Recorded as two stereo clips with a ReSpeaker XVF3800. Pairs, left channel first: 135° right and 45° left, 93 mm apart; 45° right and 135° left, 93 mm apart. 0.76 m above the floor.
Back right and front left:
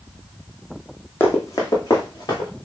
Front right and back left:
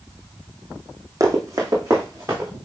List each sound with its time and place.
1.2 s running footsteps: 170° left, 1.2 m; by 2.5 s 170° right, 2.5 m